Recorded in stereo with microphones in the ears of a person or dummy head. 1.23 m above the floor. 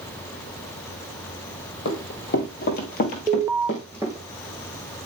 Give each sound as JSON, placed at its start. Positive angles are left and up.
{"t": 1.9, "sound": "running footsteps", "side_deg": 55, "distance_m": 2.0}
{"t": 3.3, "sound": "an alarm", "side_deg": -15, "distance_m": 0.6}